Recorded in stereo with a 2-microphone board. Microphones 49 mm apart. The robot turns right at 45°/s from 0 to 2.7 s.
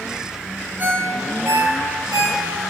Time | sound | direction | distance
0.8 | a ringtone | 35° right (ahead or behind) | 0.9 m